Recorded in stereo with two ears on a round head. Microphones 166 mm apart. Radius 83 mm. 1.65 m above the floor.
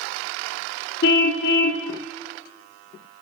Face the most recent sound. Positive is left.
turn(degrees=55)  # may be behind; listen again after turning